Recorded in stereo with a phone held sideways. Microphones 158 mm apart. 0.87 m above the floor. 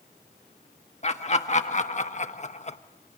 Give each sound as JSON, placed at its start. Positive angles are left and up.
{"t": 1.0, "sound": "laughter", "side_deg": 40, "distance_m": 1.7}